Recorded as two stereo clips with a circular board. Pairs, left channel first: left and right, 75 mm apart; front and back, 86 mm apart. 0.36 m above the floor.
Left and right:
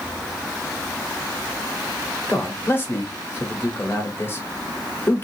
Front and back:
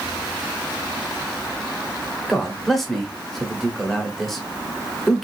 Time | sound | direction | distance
2.3 | a man speaking | 85° left | 1.0 m